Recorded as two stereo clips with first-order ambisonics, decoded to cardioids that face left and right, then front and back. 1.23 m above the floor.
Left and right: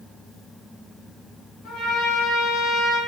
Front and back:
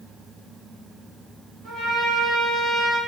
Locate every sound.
1.6 s a trumpet: 125° left, 1.7 m